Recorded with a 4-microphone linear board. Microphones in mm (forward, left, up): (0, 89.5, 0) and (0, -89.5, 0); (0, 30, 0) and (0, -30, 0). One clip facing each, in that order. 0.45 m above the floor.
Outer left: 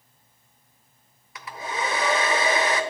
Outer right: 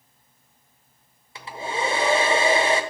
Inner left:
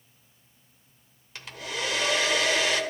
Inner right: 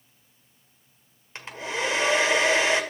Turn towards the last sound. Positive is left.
turn(degrees=-30)  # may be behind; listen again after turning